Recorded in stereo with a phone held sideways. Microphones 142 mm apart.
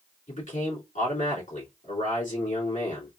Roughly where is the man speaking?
Left.